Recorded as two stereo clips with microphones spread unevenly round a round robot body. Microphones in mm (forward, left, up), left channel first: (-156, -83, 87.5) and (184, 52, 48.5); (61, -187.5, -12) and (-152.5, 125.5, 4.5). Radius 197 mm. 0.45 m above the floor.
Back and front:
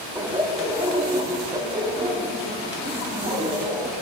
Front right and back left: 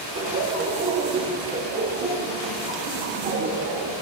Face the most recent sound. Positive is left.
turn(degrees=80)